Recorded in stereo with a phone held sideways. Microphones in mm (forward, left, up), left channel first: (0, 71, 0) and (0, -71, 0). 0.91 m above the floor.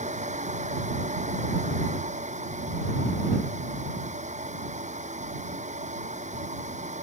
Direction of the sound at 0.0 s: 55° right (ahead or behind).